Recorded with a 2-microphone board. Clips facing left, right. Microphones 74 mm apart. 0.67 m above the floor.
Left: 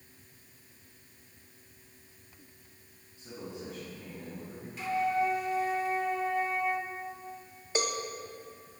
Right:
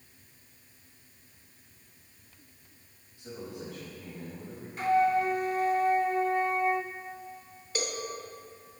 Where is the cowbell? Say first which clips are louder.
Left 3 dB; 20° left (ahead or behind), 1.2 m.